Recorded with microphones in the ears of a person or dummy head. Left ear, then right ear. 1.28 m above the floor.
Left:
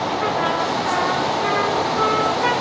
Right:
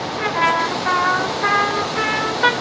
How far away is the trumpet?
About 1.2 m.